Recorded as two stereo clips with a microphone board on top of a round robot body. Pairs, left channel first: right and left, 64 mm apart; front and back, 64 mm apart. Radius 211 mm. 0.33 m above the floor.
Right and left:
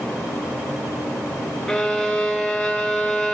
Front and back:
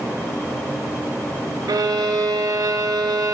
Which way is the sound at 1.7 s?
170° right.